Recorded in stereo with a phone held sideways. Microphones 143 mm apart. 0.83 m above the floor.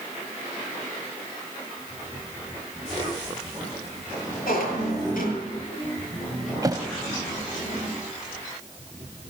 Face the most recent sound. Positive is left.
turn(degrees=-25)  # may be behind; listen again after turning